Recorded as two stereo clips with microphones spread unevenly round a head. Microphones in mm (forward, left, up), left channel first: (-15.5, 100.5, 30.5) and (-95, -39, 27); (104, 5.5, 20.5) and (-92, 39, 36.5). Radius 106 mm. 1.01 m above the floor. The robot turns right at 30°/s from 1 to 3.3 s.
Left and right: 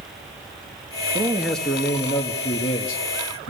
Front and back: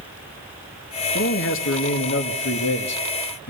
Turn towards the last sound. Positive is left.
turn(degrees=25)